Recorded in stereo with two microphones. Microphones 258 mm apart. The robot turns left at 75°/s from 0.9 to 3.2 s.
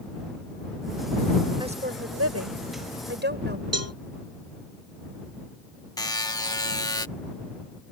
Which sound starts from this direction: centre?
A buzzer, at 6.0 s.